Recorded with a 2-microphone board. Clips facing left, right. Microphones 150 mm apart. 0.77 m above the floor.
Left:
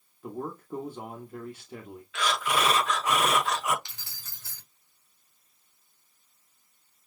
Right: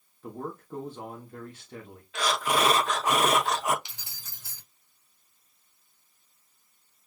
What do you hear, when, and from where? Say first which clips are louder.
0.2 s a man speaking: left 1 dB; 10° left (ahead or behind), 1.0 m
2.1 s breathing: right 2 dB; 35° right (ahead or behind), 0.8 m
3.9 s keys jangling: even; 15° right (ahead or behind), 2.0 m